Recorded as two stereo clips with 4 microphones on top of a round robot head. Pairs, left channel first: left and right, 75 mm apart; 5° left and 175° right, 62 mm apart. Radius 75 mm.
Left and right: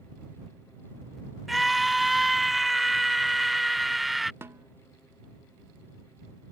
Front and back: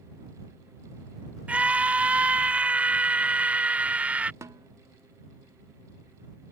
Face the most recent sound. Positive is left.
turn(degrees=-145)